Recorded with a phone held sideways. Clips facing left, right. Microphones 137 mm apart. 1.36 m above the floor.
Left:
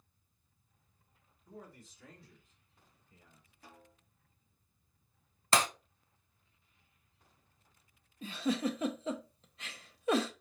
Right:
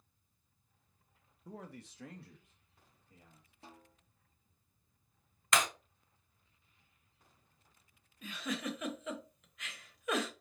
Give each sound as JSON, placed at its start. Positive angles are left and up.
{"t": 1.4, "sound": "a man speaking", "side_deg": -80, "distance_m": 1.0}
{"t": 3.6, "sound": "a snare drum", "side_deg": -25, "distance_m": 1.2}
{"t": 5.5, "sound": "breaking glass", "side_deg": 30, "distance_m": 0.7}
{"t": 8.2, "sound": "a giggle", "side_deg": 30, "distance_m": 0.8}